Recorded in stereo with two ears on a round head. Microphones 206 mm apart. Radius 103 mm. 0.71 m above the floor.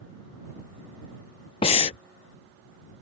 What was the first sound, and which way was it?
Breathing, 25° left (ahead or behind).